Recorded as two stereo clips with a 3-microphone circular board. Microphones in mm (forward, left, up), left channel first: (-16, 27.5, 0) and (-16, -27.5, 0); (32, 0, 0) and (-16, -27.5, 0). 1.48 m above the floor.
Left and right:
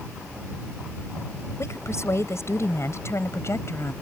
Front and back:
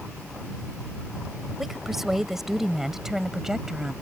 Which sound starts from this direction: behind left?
A woman speaking, at 1.6 s.